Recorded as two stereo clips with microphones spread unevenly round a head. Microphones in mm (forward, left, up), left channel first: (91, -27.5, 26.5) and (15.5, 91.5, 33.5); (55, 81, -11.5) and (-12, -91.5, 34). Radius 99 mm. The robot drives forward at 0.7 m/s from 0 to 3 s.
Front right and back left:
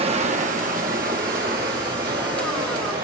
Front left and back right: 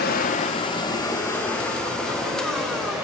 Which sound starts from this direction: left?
Running water, at 0.0 s.